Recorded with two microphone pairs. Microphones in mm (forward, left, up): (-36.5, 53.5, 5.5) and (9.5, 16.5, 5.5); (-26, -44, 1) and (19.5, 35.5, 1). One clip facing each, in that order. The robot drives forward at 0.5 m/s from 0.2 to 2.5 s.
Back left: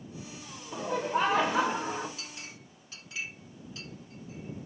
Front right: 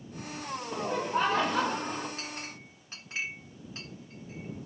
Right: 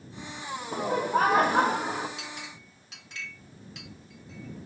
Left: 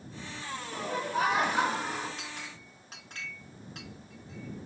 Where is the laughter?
125° right, 0.8 m; by 2.1 s 155° right, 1.3 m.